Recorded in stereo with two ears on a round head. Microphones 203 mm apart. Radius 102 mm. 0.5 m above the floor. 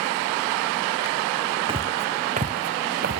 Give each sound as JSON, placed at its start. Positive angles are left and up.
{"t": 1.7, "sound": "footsteps", "side_deg": -25}